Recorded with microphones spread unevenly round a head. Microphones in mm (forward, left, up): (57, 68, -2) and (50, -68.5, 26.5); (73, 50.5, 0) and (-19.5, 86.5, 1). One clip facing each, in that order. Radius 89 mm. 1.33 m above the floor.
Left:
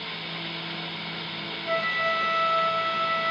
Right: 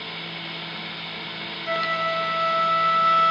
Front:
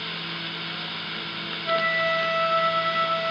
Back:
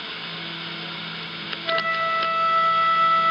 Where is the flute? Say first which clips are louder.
Right 1 dB, even; 100° right, 2.5 m.